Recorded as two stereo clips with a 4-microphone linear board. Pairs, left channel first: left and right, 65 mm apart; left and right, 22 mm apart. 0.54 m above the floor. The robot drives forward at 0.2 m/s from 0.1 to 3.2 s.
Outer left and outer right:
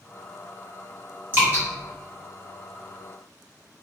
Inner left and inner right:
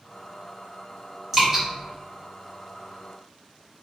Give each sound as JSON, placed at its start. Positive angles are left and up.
{"t": 1.3, "sound": "dripping", "side_deg": -35, "distance_m": 1.4}